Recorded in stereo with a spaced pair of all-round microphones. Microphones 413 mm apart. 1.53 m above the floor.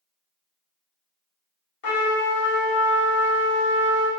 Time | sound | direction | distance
1.8 | a trumpet | 60° left (ahead or behind) | 0.7 m